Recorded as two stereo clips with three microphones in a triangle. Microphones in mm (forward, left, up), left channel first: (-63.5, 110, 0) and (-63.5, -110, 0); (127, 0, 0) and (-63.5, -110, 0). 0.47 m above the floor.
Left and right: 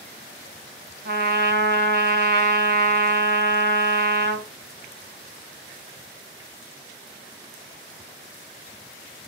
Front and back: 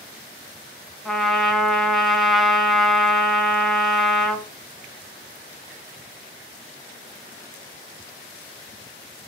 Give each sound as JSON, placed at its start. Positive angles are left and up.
{"t": 1.1, "sound": "a trumpet", "azimuth_deg": -60, "distance_m": 0.6}